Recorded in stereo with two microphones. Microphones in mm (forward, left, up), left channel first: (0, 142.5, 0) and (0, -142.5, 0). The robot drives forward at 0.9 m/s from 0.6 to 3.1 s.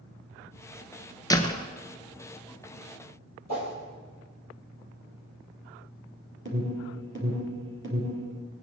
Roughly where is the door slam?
Centre.